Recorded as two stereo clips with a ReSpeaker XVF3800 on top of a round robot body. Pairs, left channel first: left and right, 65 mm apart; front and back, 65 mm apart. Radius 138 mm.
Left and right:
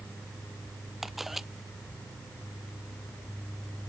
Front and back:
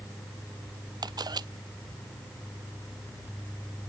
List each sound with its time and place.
1.0 s a camera shutter: 175° right